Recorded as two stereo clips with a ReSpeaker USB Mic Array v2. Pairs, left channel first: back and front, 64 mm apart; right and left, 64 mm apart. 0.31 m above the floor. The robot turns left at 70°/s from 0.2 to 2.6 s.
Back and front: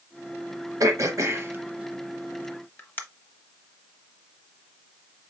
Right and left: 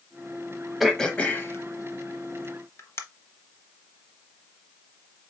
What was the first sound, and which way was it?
Throat clearing, straight ahead.